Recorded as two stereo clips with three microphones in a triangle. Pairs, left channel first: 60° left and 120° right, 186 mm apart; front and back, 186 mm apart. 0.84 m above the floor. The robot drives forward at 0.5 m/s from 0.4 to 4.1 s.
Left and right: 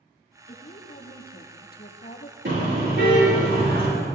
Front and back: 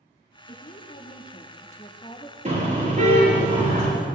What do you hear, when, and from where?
0.5 s a woman speaking: 30° left, 2 m; by 2.4 s 55° left, 1.4 m
2.5 s a car horn: 130° right, 6 m; by 3.9 s 135° right, 6.5 m